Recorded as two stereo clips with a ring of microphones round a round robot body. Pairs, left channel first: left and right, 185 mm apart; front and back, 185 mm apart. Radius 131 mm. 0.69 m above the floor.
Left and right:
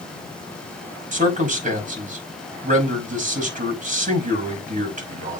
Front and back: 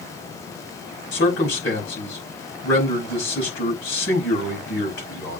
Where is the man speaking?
40° right, 5.5 m.